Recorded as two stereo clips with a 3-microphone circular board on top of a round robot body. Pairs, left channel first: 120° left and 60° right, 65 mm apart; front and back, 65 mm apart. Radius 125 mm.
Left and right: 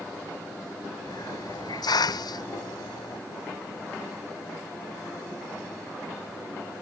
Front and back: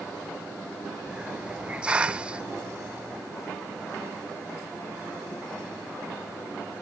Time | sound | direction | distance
1.1 | a hiss | 105° left | ?